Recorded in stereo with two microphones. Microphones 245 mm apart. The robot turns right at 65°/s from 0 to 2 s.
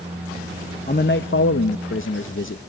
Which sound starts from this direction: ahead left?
A man speaking, at 0.9 s.